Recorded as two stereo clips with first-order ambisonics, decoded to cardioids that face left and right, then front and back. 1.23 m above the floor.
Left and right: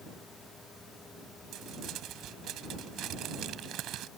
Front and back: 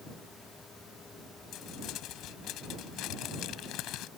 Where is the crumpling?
40° right.